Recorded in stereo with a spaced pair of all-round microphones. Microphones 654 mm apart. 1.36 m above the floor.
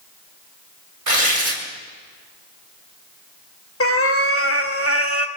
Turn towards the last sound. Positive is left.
turn(degrees=20)  # may be behind; listen again after turning